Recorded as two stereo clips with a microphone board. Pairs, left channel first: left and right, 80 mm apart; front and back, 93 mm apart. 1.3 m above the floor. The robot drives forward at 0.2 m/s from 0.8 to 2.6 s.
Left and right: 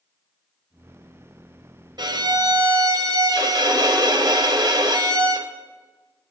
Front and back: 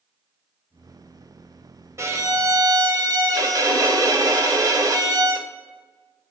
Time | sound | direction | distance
2.0 | a violin | 120° right | 0.7 m